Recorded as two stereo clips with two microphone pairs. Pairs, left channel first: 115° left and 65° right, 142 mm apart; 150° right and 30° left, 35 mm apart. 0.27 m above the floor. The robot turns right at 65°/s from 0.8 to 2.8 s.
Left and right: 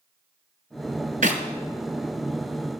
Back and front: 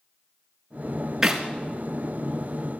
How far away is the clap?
About 3.5 m.